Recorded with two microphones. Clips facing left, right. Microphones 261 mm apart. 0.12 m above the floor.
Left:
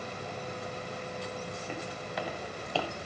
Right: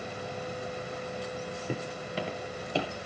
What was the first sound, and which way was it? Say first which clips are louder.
Footsteps: right 3 dB; 45° right (ahead or behind).